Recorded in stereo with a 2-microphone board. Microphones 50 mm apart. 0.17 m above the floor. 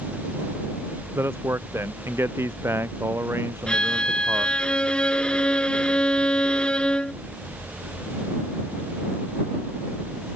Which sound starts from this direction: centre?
A violin, at 3.7 s.